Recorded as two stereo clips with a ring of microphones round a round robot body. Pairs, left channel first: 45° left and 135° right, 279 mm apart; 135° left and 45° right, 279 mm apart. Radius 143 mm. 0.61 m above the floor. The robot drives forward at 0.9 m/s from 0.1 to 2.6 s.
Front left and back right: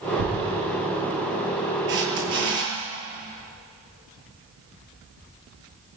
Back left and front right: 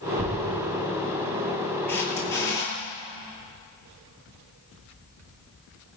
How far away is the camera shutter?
About 9.5 m.